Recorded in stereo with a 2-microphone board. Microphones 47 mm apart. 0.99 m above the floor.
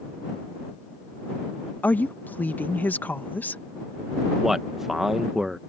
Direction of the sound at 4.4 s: 5° right (ahead or behind).